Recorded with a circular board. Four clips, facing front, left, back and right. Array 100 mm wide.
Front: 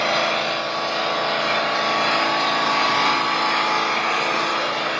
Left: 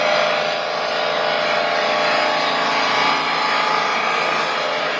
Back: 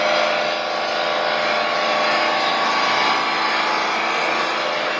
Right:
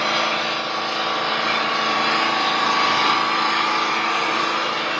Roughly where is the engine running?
Behind left.